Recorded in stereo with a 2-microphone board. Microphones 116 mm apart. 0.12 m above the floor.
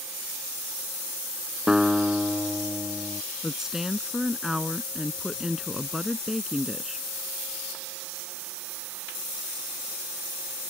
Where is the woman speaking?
5° right (ahead or behind).